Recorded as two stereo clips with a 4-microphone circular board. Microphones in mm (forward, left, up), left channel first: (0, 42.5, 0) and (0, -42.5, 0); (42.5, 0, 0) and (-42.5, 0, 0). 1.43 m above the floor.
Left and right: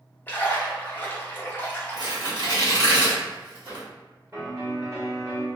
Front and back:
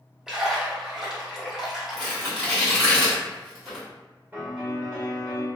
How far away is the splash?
About 0.7 m.